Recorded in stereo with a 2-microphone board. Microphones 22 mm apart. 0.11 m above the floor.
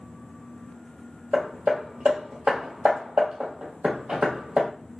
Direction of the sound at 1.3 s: 70° right (ahead or behind).